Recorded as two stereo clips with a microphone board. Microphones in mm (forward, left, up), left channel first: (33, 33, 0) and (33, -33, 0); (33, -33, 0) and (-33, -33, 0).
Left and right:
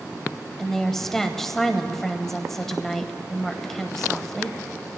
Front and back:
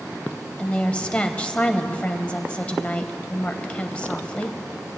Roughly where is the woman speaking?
Ahead.